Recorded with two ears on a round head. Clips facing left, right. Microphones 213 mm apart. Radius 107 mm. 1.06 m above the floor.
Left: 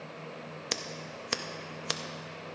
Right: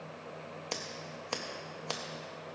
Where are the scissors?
25° left (ahead or behind), 0.6 m.